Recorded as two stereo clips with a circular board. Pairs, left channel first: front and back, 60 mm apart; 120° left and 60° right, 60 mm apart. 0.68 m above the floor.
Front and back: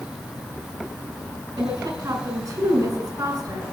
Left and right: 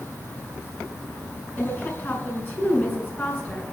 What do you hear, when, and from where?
1.6 s a woman speaking: straight behind, 6.5 m